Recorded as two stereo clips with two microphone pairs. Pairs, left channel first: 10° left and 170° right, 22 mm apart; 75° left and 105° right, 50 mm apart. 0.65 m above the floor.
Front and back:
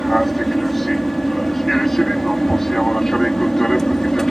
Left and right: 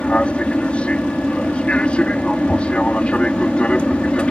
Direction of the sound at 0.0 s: 95° left.